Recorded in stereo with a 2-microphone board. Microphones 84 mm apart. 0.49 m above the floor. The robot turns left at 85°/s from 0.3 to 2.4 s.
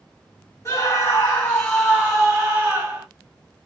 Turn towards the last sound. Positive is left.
turn(degrees=-55)